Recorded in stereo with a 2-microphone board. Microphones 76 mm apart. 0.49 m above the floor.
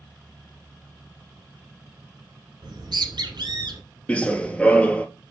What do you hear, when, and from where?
2.6 s a bird: 75° right (ahead or behind), 1.5 m
4.1 s running footsteps: 15° left (ahead or behind), 0.6 m